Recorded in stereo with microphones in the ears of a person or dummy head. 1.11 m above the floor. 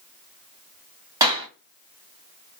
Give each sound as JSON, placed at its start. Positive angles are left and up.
{"t": 1.2, "sound": "a clap", "side_deg": -25, "distance_m": 1.4}